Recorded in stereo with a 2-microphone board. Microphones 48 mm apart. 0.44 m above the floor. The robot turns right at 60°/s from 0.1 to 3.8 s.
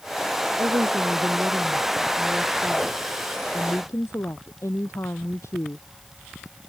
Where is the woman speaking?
100° right; by 5.8 s 95° left.